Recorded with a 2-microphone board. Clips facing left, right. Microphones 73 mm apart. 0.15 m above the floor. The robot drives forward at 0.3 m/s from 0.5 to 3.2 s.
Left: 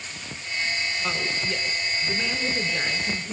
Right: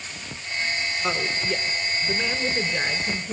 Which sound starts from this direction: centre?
A woman speaking, at 1.0 s.